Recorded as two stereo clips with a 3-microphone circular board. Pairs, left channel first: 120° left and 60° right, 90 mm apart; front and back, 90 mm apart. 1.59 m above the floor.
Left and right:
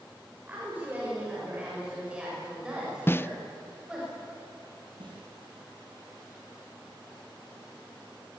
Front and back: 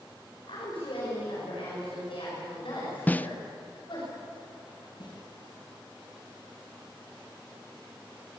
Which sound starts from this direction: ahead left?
A snare drum, at 3.1 s.